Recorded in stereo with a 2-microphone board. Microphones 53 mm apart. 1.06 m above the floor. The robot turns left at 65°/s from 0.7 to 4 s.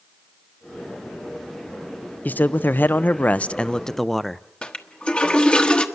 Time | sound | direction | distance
2.2 | a man speaking | 120° left | 0.6 m
4.6 | a toilet flushing | 20° left (ahead or behind) | 1.2 m